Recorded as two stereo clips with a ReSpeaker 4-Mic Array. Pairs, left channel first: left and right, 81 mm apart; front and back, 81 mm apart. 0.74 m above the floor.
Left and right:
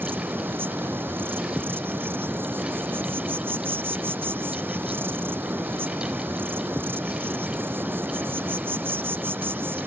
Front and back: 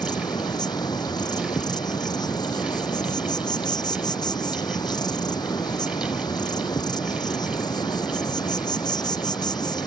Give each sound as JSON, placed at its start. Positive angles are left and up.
{"t": 0.0, "sound": "an insect", "azimuth_deg": -25}